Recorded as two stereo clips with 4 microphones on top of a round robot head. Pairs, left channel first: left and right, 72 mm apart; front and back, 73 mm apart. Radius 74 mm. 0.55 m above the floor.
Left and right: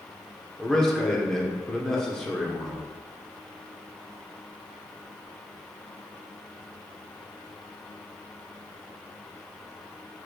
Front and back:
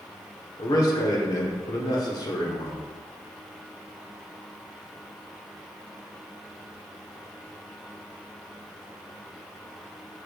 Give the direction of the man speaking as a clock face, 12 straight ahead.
12 o'clock.